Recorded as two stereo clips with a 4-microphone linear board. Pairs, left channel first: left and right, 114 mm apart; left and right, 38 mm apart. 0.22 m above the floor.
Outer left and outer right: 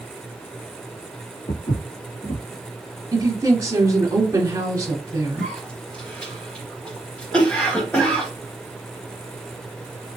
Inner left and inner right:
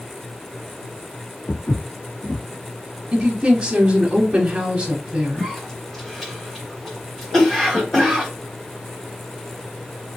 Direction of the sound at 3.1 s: 30° right (ahead or behind).